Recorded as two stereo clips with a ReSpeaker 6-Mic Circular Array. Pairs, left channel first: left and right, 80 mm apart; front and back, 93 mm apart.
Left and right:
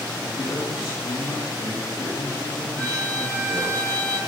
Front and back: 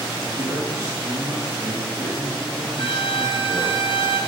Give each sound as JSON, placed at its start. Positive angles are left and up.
{"t": 0.2, "sound": "a man speaking", "azimuth_deg": 130, "distance_m": 7.0}
{"t": 2.8, "sound": "a violin", "azimuth_deg": 20, "distance_m": 2.5}